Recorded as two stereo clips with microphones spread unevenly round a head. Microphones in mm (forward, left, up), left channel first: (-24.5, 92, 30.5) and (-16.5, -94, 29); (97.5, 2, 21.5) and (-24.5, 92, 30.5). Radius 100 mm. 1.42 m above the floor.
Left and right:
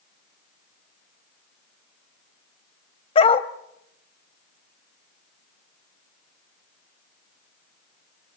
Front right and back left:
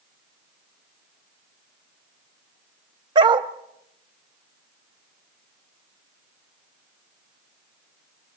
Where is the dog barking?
125° left, 0.9 m.